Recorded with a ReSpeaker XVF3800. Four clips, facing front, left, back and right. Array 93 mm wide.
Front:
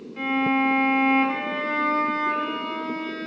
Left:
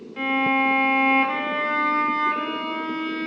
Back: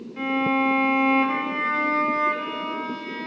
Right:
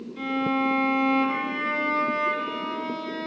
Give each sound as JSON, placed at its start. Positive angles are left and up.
{"t": 0.2, "sound": "a violin", "azimuth_deg": 100, "distance_m": 0.8}